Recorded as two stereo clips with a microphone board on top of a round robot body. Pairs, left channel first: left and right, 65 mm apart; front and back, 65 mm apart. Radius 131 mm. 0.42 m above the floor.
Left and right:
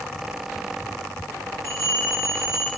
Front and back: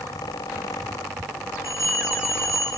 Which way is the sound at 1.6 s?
140° left.